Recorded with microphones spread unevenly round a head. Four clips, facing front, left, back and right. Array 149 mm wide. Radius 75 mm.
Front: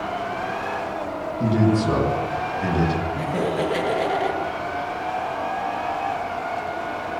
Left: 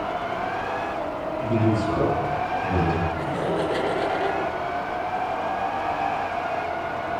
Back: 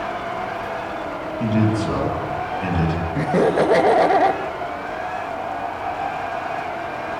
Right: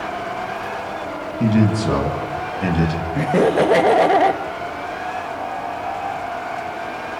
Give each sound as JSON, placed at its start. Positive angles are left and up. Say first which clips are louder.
{"t": 1.4, "sound": "a man speaking", "louder": "right 5 dB, front 1 dB", "azimuth_deg": -90, "distance_m": 9.0}
{"t": 3.1, "sound": "laughter", "louder": "right 9 dB, back 6 dB", "azimuth_deg": -120, "distance_m": 2.0}